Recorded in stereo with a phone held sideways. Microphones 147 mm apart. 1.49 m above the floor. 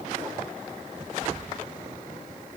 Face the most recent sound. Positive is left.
No sound to turn to.